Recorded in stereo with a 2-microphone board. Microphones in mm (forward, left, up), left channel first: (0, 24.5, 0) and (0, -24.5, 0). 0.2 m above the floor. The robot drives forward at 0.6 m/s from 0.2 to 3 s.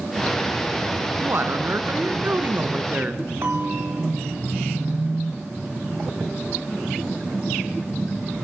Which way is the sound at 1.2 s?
50° right (ahead or behind).